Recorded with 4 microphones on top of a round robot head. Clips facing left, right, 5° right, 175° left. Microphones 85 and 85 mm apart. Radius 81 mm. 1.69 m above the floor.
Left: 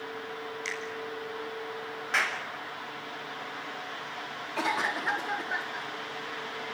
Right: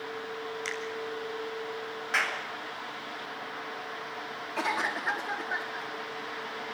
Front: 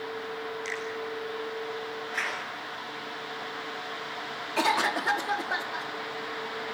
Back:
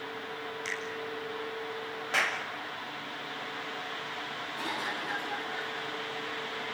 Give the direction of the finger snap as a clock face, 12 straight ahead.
5 o'clock.